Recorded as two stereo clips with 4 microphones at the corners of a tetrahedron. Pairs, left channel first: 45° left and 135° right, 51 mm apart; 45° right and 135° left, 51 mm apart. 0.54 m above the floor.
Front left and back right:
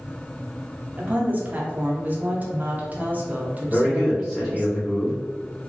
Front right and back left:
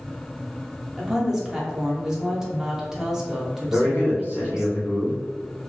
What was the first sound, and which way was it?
A woman speaking, 155° right.